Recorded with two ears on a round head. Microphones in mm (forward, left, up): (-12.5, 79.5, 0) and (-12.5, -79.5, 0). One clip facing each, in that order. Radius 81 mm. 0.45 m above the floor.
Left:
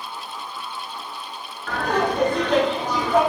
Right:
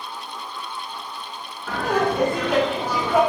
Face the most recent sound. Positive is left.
turn(degrees=-10)  # may be behind; listen again after turning